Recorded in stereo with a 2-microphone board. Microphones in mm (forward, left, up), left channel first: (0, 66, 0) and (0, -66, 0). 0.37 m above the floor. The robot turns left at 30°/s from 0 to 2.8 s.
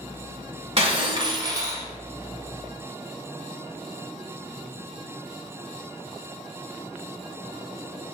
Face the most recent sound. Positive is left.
turn(degrees=170)